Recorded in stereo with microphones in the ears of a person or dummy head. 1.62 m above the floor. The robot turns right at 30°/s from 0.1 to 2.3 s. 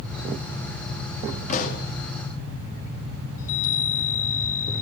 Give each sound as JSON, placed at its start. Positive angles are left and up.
{"t": 1.5, "sound": "a pop", "side_deg": 50, "distance_m": 2.5}
{"t": 3.4, "sound": "a chime", "side_deg": 85, "distance_m": 4.5}